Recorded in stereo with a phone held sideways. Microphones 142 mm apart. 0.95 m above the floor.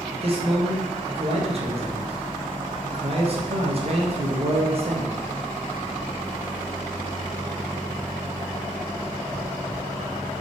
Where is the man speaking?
45° right (ahead or behind), 0.7 m.